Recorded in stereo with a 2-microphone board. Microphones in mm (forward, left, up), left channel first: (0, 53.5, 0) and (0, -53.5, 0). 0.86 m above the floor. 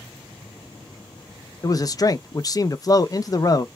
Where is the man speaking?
35° left (ahead or behind), 0.6 m.